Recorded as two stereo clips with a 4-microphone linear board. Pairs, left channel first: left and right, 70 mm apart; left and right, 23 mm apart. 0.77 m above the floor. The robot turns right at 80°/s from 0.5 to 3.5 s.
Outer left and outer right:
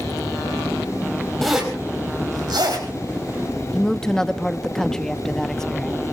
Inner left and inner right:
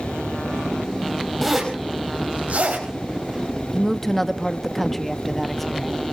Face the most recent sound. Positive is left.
turn(degrees=10)  # may be behind; listen again after turning